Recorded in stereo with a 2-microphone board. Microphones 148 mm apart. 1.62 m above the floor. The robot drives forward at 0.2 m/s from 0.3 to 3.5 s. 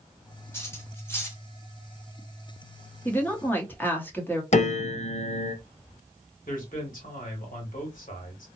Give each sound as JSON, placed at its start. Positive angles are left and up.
{"t": 0.5, "sound": "cutlery clinking", "side_deg": 15, "distance_m": 1.0}
{"t": 3.0, "sound": "a woman speaking", "side_deg": 15, "distance_m": 0.9}
{"t": 4.5, "sound": "a piano", "side_deg": 50, "distance_m": 0.6}
{"t": 6.5, "sound": "a man speaking", "side_deg": 65, "distance_m": 1.7}